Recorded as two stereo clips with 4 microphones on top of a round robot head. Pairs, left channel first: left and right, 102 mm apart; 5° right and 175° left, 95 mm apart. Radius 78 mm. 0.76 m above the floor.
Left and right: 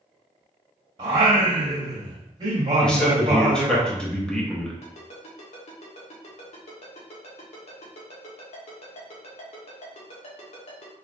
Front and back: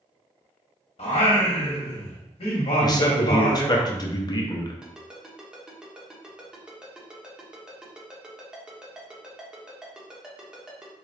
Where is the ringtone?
95° left, 1.3 m.